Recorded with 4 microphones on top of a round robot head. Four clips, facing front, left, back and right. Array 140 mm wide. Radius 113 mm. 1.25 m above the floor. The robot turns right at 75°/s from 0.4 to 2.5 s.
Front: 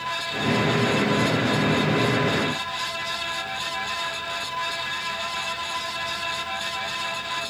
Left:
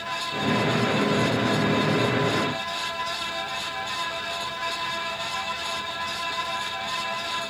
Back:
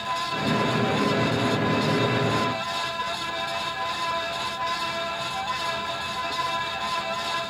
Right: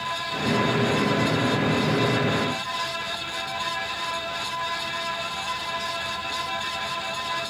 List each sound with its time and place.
Only background noise.